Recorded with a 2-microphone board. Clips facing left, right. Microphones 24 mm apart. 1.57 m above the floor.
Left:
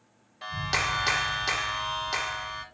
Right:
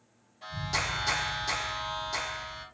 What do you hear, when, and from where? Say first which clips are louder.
0.4 s a clap: left 4 dB; 40° left (ahead or behind), 1.4 m